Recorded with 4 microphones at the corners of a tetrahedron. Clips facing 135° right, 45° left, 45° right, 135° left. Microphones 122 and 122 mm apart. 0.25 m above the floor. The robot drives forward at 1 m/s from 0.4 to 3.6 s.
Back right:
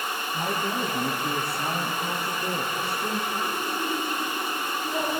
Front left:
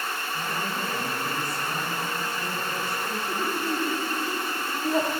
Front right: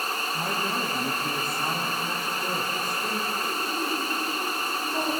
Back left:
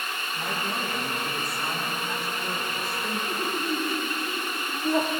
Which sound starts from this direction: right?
A woman speaking, at 0.3 s.